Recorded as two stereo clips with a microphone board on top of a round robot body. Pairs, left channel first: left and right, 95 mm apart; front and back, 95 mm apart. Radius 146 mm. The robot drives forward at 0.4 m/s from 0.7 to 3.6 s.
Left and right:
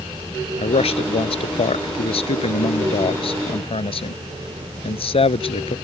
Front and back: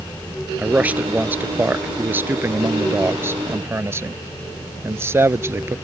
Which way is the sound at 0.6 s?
105° left.